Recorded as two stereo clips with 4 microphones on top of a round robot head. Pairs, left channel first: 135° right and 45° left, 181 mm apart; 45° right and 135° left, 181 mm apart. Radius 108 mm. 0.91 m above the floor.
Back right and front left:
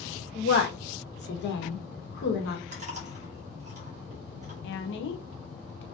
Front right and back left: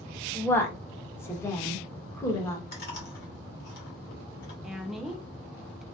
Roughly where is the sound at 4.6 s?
Behind right.